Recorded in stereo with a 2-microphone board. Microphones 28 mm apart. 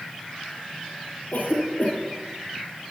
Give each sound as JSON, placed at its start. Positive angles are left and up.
{"t": 1.3, "sound": "a cough", "side_deg": 80, "distance_m": 7.5}